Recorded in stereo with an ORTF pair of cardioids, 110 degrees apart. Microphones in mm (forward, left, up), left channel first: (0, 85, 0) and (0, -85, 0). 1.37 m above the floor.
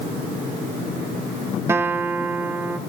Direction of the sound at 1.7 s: 15° right.